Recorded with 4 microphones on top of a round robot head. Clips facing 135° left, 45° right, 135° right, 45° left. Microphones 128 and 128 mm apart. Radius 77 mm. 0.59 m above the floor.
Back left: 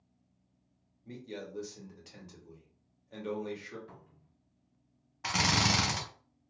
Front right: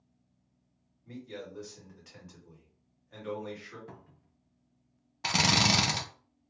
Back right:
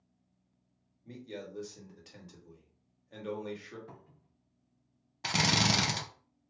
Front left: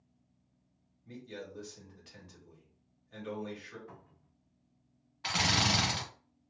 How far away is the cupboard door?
About 0.6 m.